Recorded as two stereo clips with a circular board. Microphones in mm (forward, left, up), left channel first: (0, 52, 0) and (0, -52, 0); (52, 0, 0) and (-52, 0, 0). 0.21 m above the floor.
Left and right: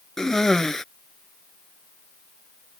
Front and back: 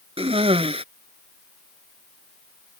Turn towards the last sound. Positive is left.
turn(degrees=175)